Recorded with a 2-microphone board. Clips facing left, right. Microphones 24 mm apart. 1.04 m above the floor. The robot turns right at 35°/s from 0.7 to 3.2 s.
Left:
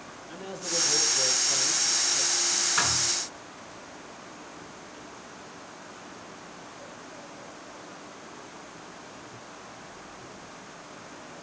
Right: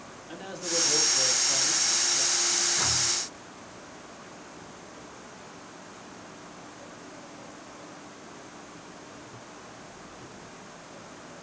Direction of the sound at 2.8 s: 80° left.